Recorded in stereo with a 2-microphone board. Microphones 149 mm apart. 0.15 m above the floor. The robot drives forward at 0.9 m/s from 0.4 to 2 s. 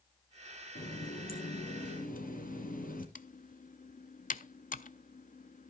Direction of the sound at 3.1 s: 60° left (ahead or behind).